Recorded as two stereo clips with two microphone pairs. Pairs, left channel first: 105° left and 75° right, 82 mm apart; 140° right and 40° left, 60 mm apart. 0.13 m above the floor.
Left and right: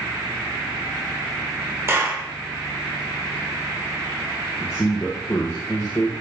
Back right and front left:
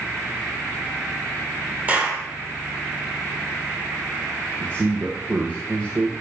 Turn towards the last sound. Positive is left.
turn(degrees=65)